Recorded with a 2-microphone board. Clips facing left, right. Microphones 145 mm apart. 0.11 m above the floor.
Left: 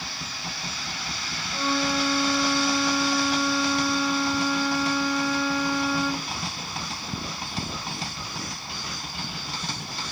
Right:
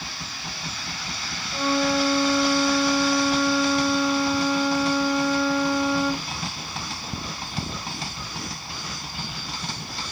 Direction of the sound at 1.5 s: Centre (ahead or behind).